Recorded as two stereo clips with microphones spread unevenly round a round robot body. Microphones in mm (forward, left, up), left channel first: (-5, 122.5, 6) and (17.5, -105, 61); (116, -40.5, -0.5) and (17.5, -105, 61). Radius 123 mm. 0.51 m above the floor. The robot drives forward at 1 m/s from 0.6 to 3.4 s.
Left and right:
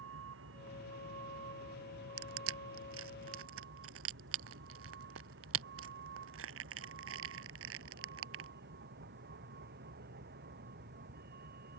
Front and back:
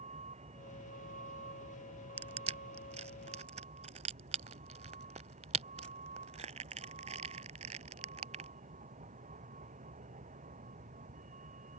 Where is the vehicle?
120° right; by 11.8 s 135° right.